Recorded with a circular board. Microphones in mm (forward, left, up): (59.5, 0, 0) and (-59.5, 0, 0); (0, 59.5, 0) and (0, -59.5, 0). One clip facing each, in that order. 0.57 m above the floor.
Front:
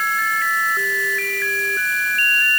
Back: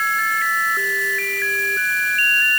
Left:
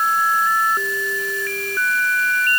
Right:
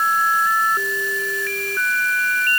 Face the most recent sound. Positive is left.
No sound to turn to.